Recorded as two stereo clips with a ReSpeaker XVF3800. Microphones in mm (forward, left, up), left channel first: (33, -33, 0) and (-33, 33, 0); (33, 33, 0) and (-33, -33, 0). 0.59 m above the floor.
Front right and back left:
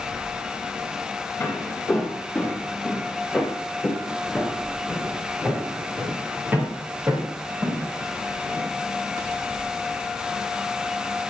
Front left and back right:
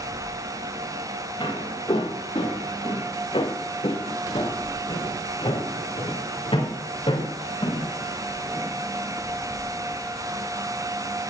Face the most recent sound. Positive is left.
turn(degrees=70)